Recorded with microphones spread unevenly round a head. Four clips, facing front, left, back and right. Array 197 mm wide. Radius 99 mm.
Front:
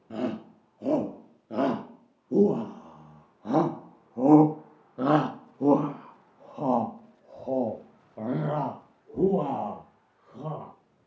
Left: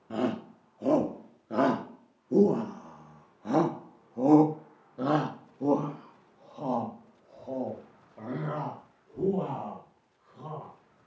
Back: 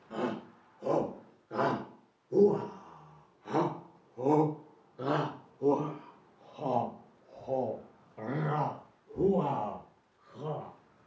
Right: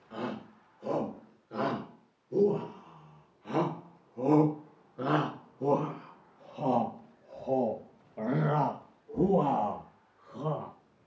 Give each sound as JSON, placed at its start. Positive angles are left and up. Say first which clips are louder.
{"t": 0.1, "sound": "a shout", "louder": "left 7 dB, front 3 dB", "azimuth_deg": 60, "distance_m": 3.5}